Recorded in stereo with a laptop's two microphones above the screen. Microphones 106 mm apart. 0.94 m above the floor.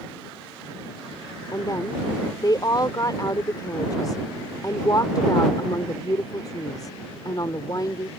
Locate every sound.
1.5 s a woman speaking: 40° left (ahead or behind)